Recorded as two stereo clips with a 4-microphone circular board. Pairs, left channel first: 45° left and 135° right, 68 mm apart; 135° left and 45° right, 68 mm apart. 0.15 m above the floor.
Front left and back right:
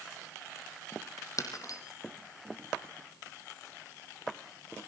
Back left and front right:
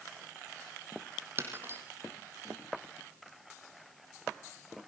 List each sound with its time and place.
1.4 s breaking glass: 10° left, 4 m